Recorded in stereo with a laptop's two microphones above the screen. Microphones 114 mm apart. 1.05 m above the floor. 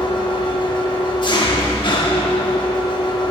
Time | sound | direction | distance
0.0 | an engine running | 40° left (ahead or behind) | 1.0 m